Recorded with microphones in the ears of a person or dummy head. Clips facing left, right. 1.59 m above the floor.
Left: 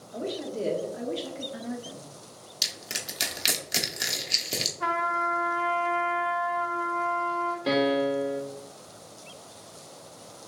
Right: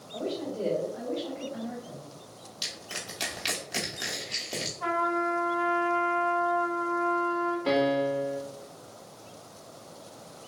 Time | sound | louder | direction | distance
0.1 | a woman speaking | even | 15° left (ahead or behind) | 1.5 m
2.6 | crushing | left 1 dB | 30° left (ahead or behind) | 0.9 m
4.8 | a trumpet | right 3 dB | 65° left (ahead or behind) | 1.6 m
7.7 | a piano | left 2 dB | 10° left (ahead or behind) | 1.0 m